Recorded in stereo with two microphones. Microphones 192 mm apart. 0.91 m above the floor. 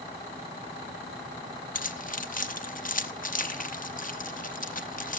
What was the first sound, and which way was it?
Keys jangling, 45° left (ahead or behind).